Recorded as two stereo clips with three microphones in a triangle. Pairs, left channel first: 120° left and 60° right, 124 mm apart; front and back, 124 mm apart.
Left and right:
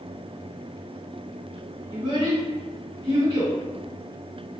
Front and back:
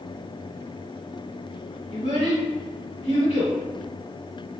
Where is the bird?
I don't hear a bird.